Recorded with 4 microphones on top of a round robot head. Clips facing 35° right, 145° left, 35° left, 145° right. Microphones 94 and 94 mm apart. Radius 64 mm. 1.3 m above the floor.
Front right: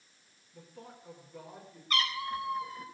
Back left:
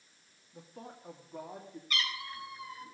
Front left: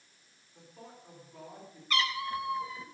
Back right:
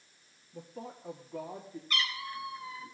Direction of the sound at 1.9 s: 20° left.